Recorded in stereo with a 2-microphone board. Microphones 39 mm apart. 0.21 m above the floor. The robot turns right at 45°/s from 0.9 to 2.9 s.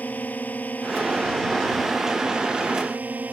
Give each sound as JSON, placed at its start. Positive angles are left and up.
{"t": 0.0, "sound": "a drone", "azimuth_deg": 135}